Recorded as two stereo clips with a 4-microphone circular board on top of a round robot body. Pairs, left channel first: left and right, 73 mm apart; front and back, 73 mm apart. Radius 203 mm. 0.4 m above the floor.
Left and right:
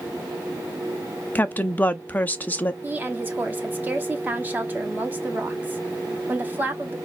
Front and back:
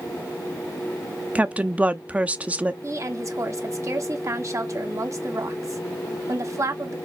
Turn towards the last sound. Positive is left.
turn(degrees=-150)